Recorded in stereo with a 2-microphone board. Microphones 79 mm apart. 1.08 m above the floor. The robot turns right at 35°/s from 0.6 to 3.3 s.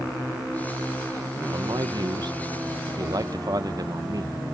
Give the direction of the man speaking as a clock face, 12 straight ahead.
4 o'clock.